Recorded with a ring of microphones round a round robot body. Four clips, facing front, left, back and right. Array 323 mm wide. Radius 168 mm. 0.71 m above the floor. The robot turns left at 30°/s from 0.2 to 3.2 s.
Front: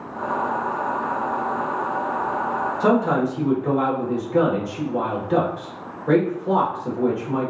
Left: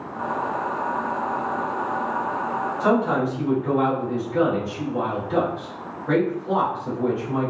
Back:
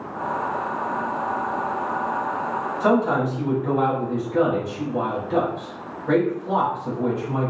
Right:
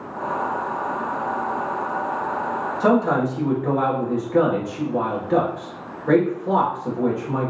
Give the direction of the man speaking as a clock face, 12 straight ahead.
1 o'clock.